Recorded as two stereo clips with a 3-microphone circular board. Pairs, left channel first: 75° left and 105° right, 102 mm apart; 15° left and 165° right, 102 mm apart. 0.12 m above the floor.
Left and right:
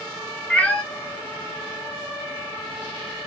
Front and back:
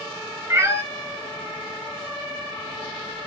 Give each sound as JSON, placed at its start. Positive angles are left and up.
{"t": 0.5, "sound": "a cat meowing", "azimuth_deg": 145, "distance_m": 0.6}